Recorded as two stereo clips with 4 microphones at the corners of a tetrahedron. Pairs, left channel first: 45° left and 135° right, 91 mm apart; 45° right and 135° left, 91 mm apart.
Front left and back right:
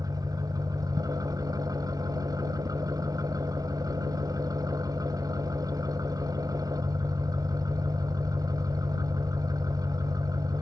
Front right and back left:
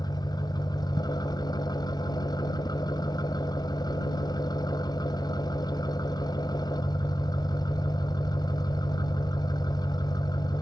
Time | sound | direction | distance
0.0 | an engine running | 85° right | ?